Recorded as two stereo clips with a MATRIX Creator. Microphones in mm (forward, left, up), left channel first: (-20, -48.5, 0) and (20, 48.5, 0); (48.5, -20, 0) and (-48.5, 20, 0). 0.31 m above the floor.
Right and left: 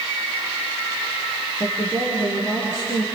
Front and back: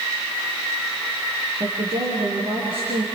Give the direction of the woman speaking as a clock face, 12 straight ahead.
6 o'clock.